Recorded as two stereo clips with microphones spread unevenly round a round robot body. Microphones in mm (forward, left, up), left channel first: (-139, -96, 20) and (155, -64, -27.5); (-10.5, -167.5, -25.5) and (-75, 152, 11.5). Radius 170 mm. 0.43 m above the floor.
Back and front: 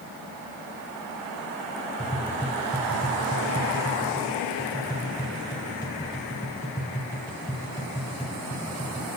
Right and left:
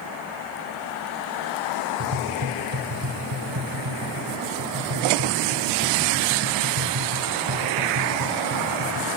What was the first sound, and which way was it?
Tapping, 105° left.